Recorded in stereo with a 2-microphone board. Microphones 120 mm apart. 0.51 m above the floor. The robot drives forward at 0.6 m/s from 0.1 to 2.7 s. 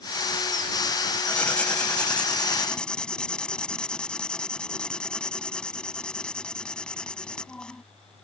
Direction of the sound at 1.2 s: 10° left (ahead or behind).